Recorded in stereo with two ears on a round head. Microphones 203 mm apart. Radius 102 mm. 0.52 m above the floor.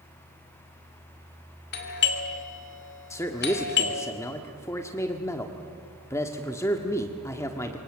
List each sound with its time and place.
1.7 s a doorbell: 50° left (ahead or behind), 2.5 m
3.1 s a man speaking: 10° left (ahead or behind), 1.3 m